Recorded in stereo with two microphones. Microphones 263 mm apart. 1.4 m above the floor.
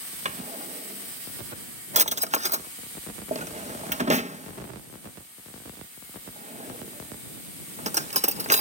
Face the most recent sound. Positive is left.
turn(degrees=-25)  # may be behind; listen again after turning